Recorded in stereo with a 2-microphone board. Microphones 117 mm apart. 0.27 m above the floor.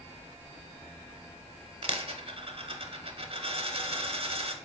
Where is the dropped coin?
55° right (ahead or behind), 0.5 m.